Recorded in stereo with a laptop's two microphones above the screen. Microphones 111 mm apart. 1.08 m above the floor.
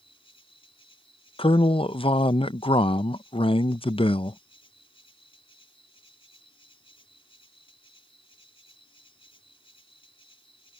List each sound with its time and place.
0.0 s an insect: 55° left (ahead or behind)
1.4 s a man speaking: 55° left (ahead or behind)